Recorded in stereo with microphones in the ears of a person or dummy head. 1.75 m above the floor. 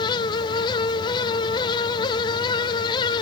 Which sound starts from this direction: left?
A fan, at 0.0 s.